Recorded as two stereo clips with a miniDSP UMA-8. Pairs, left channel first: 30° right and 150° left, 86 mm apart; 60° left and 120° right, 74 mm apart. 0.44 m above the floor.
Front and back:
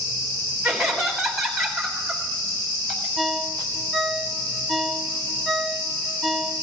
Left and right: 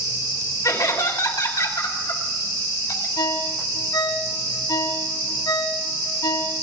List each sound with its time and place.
0.6 s laughter: 60° left, 3.5 m
3.2 s a ringtone: 60° left, 1.4 m